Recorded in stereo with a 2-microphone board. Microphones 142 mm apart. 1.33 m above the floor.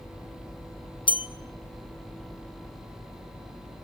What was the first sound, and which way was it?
A bell, 35° left (ahead or behind).